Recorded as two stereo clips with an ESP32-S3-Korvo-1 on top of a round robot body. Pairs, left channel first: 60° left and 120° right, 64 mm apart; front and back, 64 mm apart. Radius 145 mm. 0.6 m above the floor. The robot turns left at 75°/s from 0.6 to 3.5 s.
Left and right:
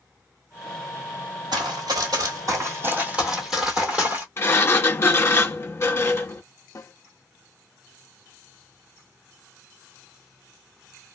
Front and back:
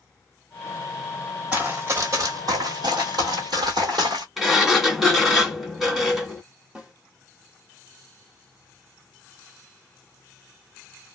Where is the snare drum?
105° left, 1.0 m.